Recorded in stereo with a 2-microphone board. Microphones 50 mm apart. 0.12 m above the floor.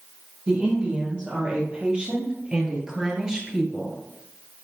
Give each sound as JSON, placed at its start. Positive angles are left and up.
{"t": 0.5, "sound": "a woman speaking", "side_deg": -25, "distance_m": 3.5}